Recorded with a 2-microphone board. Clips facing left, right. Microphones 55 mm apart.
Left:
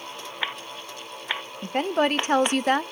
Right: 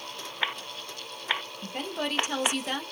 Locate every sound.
1.6 s a woman speaking: 45° left (ahead or behind), 0.5 m